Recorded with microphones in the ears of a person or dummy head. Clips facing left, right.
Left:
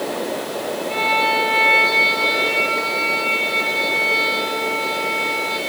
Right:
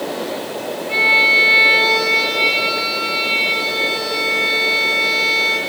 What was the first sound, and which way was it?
A violin, 20° right (ahead or behind).